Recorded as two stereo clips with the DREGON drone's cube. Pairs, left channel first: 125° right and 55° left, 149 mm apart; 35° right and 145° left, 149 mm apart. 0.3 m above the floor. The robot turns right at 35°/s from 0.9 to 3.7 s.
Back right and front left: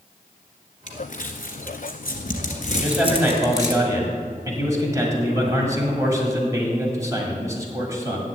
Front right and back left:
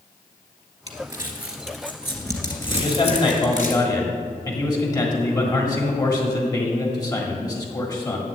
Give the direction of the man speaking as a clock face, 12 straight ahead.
1 o'clock.